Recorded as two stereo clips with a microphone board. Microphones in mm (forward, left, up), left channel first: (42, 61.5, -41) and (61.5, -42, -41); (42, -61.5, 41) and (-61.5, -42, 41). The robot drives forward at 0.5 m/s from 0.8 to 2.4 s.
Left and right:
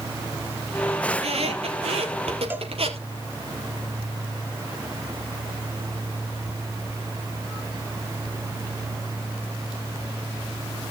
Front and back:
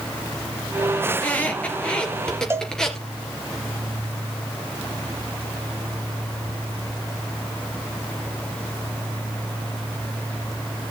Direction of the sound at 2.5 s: 140° right.